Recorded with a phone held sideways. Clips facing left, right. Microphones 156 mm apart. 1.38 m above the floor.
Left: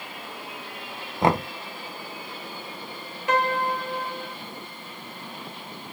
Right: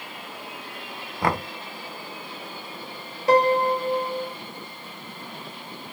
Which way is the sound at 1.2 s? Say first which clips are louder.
Left 3 dB; 25° left (ahead or behind).